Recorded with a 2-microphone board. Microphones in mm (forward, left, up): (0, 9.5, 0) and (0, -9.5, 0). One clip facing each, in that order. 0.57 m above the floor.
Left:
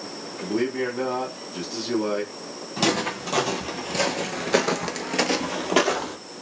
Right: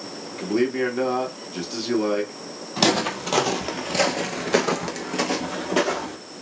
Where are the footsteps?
25° right (ahead or behind), 1.1 m; by 6.2 s 30° left (ahead or behind), 1.0 m.